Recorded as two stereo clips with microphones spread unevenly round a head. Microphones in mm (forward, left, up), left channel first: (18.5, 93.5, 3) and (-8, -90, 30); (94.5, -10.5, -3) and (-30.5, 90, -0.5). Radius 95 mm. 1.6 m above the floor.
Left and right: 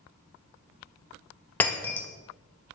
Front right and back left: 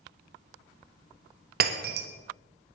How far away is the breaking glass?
About 1.3 m.